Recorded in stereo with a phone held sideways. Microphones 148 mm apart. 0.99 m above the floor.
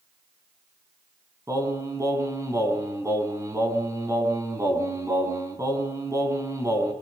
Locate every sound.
1.5 s singing: 20° right (ahead or behind), 4.5 m